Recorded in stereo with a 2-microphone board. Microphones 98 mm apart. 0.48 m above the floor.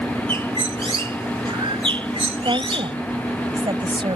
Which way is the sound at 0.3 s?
65° right (ahead or behind).